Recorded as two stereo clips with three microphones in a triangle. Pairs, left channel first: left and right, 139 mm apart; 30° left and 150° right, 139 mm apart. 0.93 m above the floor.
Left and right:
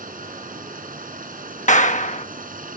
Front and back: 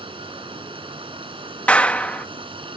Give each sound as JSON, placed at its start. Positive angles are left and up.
{"t": 0.0, "sound": "running water", "azimuth_deg": -95}
{"t": 1.7, "sound": "a clap", "azimuth_deg": 110}